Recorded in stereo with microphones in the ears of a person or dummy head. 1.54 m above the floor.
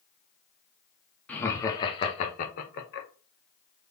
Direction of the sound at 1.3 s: 10° left (ahead or behind).